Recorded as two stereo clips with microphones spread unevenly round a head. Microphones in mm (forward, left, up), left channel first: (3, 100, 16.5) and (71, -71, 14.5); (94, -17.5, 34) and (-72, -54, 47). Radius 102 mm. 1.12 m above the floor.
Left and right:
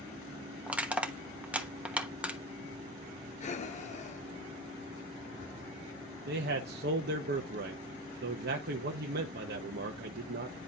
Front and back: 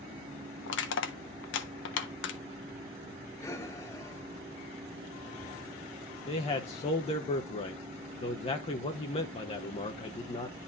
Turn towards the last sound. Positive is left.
turn(degrees=-40)